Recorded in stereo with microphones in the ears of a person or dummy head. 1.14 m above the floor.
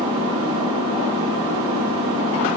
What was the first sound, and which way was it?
An engine running, 25° right (ahead or behind).